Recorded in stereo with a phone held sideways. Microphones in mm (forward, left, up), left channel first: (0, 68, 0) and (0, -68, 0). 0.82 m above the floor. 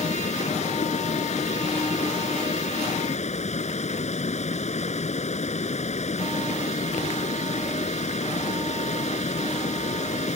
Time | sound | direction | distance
0.0 | running water | 55° left (ahead or behind) | ?